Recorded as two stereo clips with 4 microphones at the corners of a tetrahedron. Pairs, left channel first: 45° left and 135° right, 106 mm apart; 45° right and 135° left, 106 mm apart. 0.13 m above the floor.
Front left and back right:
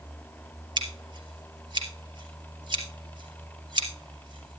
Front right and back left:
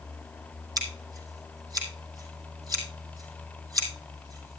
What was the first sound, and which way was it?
Scissors, 175° right.